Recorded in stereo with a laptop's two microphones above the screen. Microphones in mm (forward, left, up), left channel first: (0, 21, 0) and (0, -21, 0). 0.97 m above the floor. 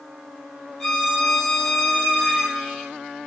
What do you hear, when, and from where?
0.8 s a violin: 10° left (ahead or behind), 1.6 m